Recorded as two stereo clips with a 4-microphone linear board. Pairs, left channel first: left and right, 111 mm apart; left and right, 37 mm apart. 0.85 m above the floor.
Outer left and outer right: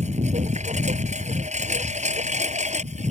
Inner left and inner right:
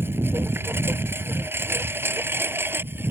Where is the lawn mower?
80° right.